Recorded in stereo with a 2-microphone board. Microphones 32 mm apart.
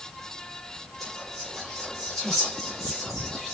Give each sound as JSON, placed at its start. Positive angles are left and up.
{"t": 1.0, "sound": "whispering", "side_deg": 5, "distance_m": 5.0}